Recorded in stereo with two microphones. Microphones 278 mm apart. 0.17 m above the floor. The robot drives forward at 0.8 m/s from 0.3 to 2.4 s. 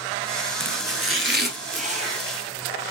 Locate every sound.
0.6 s chopping: 65° right (ahead or behind), 0.6 m; by 2.2 s 20° right (ahead or behind), 1.4 m